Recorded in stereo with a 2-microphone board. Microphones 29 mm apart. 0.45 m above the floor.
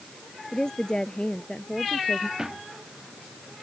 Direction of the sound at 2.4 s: 30° right (ahead or behind).